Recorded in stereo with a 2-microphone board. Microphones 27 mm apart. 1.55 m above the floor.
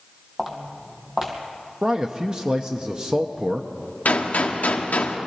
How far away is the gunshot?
About 1.1 m.